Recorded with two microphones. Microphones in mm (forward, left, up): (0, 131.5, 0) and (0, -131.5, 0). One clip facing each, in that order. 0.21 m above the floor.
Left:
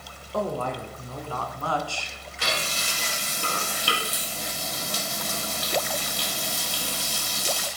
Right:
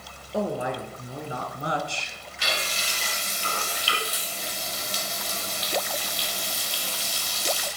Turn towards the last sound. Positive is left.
turn(degrees=60)  # may be behind; listen again after turning